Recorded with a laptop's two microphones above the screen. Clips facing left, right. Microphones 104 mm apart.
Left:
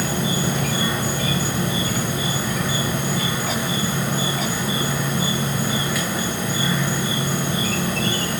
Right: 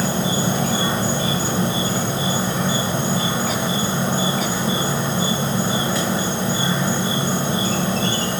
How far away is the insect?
About 1.2 m.